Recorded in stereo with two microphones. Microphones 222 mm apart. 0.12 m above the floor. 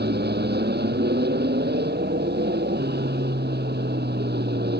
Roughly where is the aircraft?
Right.